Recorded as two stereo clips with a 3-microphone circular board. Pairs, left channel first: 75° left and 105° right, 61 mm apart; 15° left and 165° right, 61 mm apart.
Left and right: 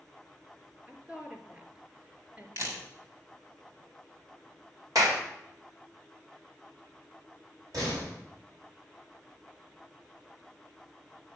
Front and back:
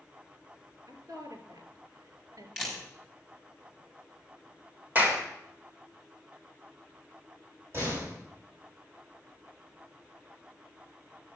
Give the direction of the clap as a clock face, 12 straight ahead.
3 o'clock.